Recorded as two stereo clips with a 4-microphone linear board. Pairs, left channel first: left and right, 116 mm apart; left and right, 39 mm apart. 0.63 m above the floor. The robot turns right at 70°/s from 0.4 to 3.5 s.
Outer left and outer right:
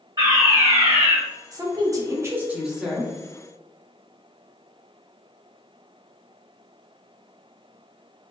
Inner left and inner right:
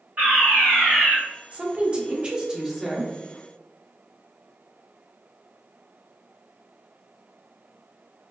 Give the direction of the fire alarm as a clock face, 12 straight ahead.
2 o'clock.